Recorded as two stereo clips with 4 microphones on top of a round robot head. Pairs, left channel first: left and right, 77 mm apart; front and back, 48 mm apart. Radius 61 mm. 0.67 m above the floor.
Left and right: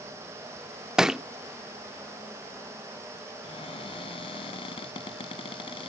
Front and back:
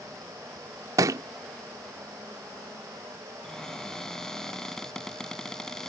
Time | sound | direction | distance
1.0 | a thud | 175° right | ?
3.4 | a cupboard door | 80° left | ?